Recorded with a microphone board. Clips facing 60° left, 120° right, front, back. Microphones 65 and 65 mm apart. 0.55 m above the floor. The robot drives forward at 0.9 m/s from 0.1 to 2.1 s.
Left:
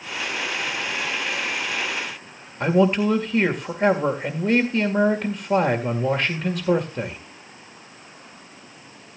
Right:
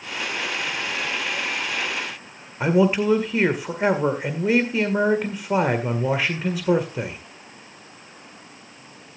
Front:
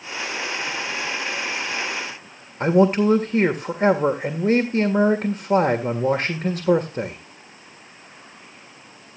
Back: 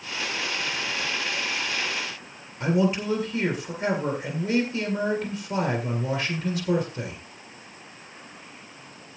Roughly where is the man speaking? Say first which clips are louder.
Even, front 7 dB; ahead right.